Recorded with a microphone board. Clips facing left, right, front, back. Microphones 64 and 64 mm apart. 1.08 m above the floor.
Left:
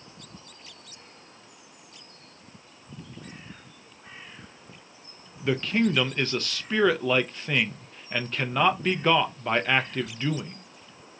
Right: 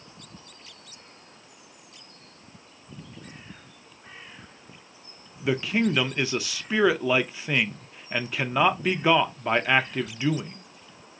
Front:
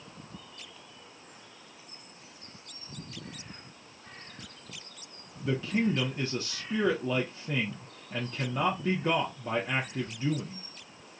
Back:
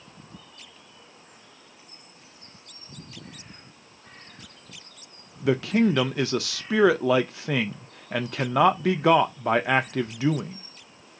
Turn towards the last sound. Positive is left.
turn(degrees=-170)